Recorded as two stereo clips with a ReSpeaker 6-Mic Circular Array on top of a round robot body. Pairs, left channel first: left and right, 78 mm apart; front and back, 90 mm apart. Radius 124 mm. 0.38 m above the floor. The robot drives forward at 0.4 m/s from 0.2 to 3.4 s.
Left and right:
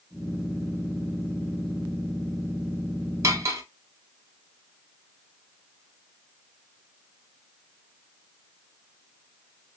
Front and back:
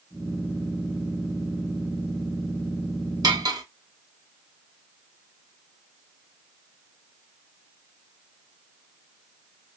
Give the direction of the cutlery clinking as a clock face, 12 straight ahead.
5 o'clock.